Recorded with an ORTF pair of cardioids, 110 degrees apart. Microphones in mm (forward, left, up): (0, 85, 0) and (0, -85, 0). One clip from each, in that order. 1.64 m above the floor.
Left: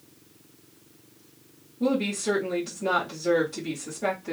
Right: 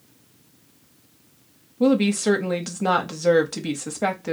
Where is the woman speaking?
60° right, 0.8 m.